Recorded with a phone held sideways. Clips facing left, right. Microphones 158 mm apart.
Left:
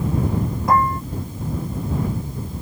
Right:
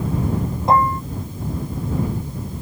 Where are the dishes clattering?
25° right (ahead or behind).